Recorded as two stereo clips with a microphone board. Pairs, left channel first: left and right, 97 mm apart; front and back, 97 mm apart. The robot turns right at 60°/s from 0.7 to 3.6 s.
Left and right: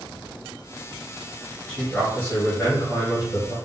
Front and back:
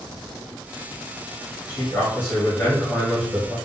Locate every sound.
1.7 s a man speaking: 10° left, 1.5 m; by 3.5 s 120° left, 1.5 m